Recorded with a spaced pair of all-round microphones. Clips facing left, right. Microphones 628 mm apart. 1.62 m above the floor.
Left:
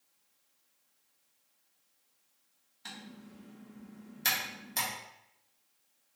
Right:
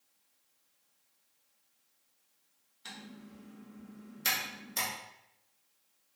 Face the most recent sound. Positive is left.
turn(degrees=25)  # may be behind; listen again after turning